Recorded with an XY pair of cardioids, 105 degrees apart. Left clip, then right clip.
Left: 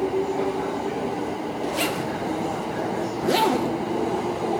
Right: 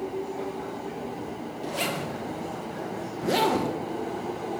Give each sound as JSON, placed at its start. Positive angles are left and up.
{"t": 1.6, "sound": "a zipper", "azimuth_deg": 20, "distance_m": 1.9}